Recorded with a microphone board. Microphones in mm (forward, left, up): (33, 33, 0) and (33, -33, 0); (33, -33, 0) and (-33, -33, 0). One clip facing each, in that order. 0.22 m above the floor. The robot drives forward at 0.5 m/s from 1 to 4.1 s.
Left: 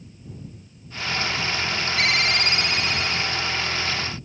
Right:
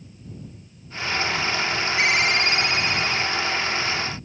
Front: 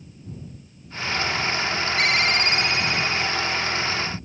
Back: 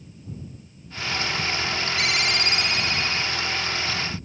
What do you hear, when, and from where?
2.0 s a ringtone: 30° right, 1.3 m; by 3.3 s 70° right, 1.0 m